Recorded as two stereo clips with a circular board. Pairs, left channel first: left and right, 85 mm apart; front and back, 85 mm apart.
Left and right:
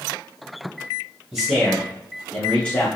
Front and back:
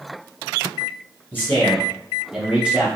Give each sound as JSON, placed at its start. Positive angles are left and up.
{"t": 1.3, "sound": "a man speaking", "azimuth_deg": -20, "distance_m": 1.1}